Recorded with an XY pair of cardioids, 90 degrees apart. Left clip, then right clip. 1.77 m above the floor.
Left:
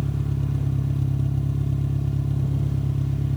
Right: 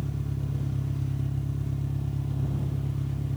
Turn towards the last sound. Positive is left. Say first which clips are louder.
# left 6 dB
turn(degrees=40)